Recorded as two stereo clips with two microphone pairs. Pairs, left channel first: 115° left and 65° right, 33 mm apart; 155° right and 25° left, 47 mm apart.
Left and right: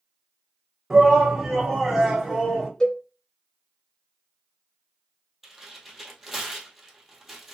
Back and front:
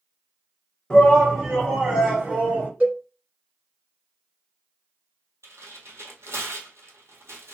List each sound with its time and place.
0.9 s a shout: 125° right, 1.4 m; by 2.7 s 45° left, 1.6 m
2.8 s a cowbell: 60° left, 0.9 m
5.4 s tearing paper: 25° left, 1.2 m